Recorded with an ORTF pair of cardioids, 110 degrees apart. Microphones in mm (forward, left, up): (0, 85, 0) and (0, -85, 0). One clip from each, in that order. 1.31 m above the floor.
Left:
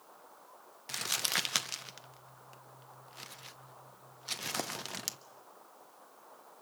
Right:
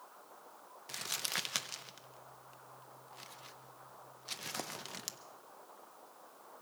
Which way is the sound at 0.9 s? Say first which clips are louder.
Left 5 dB; 25° left.